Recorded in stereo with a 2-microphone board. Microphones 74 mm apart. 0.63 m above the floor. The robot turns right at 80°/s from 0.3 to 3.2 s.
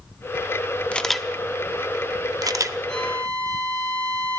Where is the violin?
10° left (ahead or behind), 2 m; by 4.4 s 35° left (ahead or behind), 2 m.